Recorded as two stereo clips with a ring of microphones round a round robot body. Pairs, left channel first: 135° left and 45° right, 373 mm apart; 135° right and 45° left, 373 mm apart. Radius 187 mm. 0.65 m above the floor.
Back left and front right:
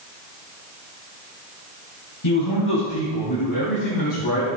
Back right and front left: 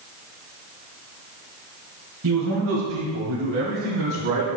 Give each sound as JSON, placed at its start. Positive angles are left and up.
{"t": 2.2, "sound": "a man speaking", "azimuth_deg": 95, "distance_m": 3.5}